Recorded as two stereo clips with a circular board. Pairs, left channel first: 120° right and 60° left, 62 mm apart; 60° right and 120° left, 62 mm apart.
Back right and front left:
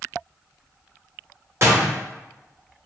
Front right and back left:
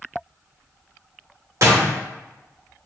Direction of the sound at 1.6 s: 100° left.